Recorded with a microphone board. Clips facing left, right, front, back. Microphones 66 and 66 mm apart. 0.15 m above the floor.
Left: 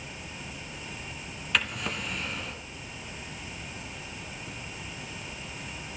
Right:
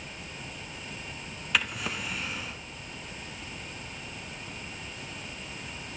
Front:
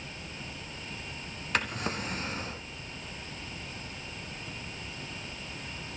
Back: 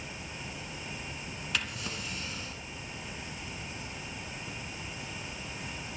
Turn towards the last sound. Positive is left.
turn(degrees=-5)